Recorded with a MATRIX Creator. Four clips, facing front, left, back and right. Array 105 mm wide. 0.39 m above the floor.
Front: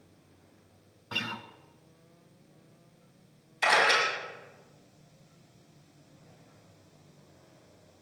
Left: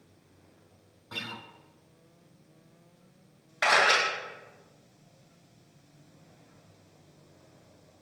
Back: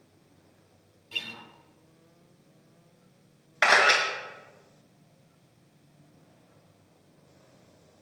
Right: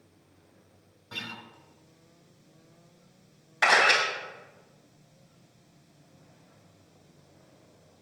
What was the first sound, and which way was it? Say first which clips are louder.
A guitar: left 1 dB, front 6 dB; 5° left.